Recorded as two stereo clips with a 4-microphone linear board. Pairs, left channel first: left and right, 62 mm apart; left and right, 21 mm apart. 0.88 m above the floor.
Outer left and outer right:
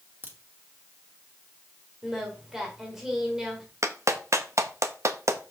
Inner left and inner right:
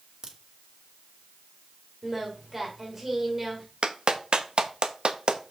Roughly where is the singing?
Centre.